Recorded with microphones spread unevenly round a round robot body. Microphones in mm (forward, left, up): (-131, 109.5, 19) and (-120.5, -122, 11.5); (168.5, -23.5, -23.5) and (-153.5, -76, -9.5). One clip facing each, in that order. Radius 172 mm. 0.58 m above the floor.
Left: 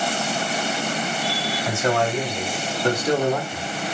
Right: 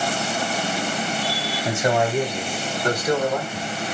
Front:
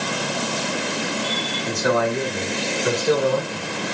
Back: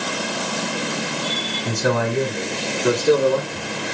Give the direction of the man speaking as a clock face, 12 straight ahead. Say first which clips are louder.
Right 1 dB, even; 5 o'clock.